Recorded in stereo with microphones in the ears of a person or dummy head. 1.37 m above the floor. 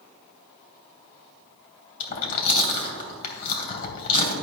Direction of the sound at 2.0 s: 60° left (ahead or behind).